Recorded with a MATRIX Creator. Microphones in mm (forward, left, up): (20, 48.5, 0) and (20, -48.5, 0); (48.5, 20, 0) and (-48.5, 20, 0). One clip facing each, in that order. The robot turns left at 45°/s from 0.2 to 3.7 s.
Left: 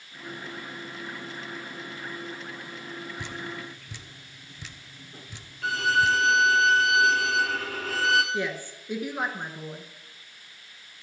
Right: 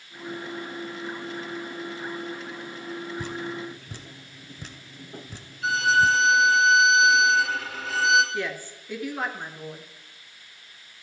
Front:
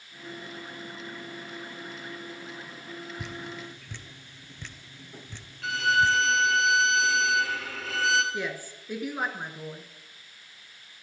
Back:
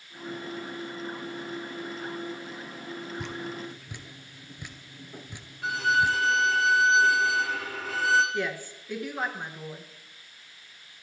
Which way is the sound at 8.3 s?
55° left.